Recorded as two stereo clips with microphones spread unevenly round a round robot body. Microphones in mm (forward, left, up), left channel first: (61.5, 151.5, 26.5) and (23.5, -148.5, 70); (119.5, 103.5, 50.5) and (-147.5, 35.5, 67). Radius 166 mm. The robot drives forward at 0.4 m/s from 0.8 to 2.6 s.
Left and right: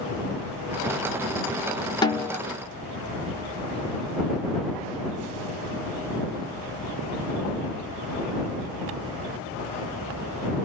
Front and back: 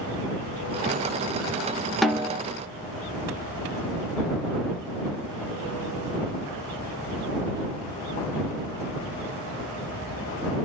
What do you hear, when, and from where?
2.0 s a snare drum: 95° left, 0.6 m; by 2.4 s 130° left, 0.6 m